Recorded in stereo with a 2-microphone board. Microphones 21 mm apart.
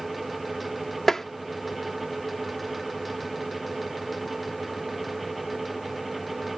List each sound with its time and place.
1.1 s tapping: 15° left (ahead or behind)